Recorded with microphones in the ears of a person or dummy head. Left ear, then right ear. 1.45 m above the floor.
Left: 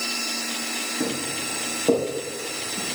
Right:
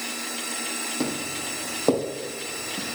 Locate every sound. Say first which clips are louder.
1.0 s footsteps: left 2 dB; 55° right (ahead or behind), 3.5 m; by 3.0 s 65° right (ahead or behind), 3 m